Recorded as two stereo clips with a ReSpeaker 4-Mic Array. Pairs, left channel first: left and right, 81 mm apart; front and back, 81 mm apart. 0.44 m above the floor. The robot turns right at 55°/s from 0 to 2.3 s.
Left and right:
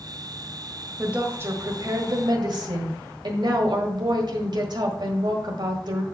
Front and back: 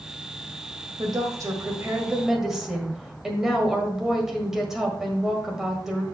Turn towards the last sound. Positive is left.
turn(degrees=-95)